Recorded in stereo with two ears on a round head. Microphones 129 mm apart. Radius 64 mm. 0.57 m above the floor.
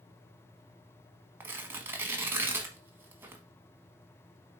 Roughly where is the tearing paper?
Centre.